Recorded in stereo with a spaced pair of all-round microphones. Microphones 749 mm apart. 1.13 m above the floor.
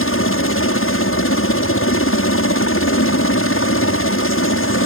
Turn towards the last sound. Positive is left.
turn(degrees=15)  # may be behind; listen again after turning